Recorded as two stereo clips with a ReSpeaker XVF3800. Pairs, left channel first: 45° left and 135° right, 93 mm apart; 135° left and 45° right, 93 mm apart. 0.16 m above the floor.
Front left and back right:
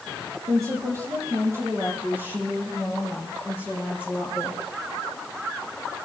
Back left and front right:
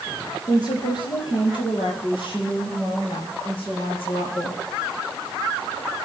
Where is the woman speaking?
175° left, 5 m; by 4.6 s 150° left, 7.5 m.